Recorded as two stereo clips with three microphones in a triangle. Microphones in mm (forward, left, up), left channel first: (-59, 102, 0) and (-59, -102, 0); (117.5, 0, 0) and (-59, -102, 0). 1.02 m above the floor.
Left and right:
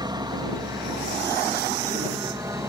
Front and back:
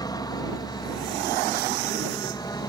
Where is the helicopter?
30° right; by 2.7 s 25° right.